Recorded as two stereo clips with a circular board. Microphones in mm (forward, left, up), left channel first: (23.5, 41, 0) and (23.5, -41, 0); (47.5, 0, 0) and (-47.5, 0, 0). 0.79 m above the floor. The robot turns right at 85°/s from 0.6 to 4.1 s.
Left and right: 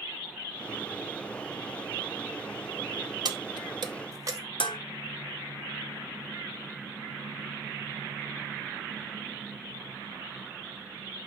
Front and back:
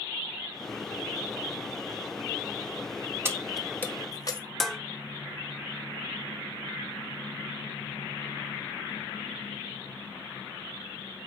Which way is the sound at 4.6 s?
90° left.